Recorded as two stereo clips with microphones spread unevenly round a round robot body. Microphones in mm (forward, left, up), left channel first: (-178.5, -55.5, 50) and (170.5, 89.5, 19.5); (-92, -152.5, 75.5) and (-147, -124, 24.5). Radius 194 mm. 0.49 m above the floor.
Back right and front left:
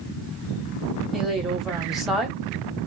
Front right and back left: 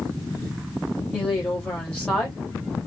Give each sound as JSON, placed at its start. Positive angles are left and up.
{"t": 1.1, "sound": "a woman speaking", "azimuth_deg": 105, "distance_m": 1.1}